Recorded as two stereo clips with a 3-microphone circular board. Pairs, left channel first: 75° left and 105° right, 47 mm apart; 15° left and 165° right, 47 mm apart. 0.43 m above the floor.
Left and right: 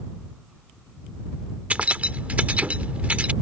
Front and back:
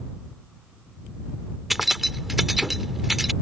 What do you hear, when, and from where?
1.7 s keys jangling: 80° right